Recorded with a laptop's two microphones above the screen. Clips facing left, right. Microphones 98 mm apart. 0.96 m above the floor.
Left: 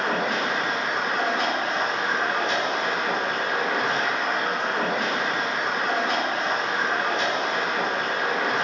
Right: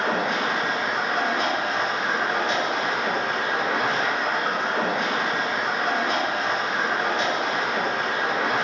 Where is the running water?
60° right (ahead or behind), 1.2 m.